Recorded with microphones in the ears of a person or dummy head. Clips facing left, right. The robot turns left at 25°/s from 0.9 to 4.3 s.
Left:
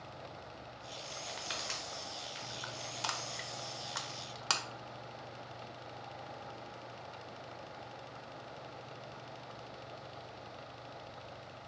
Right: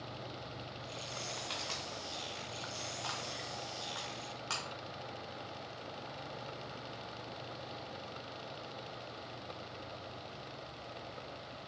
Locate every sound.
1.3 s crushing: 10° left (ahead or behind), 0.7 m; by 4.6 s 70° left (ahead or behind), 0.7 m